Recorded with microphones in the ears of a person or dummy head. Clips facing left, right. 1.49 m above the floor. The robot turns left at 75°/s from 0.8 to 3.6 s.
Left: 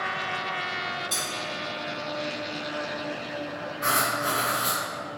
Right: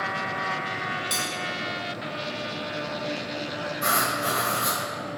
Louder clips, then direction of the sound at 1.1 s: Right 3 dB; 35° right (ahead or behind).